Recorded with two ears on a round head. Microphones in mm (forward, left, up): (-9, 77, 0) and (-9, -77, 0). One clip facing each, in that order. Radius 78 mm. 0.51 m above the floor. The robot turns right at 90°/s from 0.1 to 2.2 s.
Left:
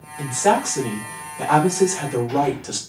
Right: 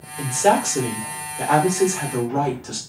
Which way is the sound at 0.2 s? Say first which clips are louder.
Right 1 dB; 150° right.